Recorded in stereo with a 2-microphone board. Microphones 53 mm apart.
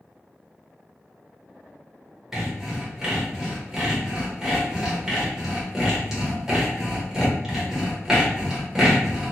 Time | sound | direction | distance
2.3 | sawing | 10° right (ahead or behind) | 1.0 m